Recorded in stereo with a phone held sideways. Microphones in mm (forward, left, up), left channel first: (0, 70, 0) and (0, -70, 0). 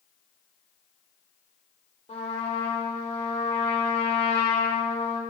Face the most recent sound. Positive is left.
turn(degrees=50)  # may be behind; listen again after turning